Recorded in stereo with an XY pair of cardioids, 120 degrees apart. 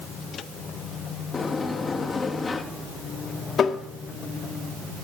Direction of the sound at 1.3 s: 25° left.